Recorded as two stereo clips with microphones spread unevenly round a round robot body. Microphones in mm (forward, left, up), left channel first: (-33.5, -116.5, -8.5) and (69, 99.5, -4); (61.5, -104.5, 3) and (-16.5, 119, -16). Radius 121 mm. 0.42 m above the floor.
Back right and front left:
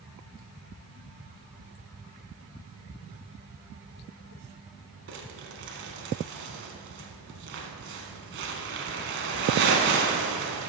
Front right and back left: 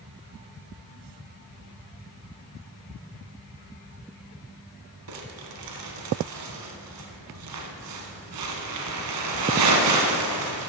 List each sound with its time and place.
5.1 s crumpling: 115° left, 1.2 m